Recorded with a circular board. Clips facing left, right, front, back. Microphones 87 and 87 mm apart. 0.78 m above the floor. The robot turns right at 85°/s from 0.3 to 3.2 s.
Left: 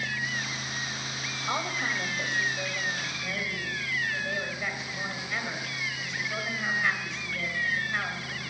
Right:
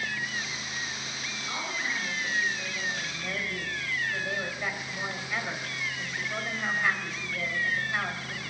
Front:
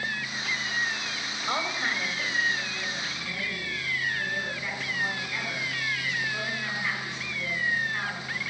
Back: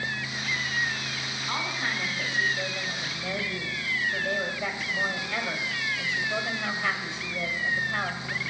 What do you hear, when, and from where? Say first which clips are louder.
1.5 s a woman speaking: left 4 dB, front 2 dB; 40° left, 3 m; by 8.4 s 175° right, 3 m